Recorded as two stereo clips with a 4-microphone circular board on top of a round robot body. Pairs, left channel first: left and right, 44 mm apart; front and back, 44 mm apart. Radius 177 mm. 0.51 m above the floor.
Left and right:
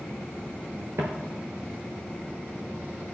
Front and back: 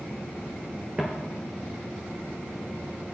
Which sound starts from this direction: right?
Footsteps, at 1.0 s.